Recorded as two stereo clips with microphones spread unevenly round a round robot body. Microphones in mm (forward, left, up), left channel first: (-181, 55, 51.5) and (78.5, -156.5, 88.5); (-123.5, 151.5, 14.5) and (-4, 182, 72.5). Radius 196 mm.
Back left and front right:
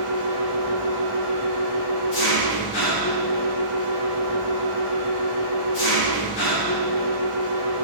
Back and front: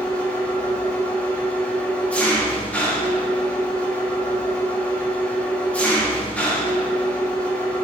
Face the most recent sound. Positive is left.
turn(degrees=110)